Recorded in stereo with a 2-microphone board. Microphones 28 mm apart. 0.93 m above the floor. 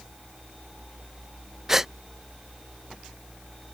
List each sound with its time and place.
1.7 s a gasp: 15° right (ahead or behind)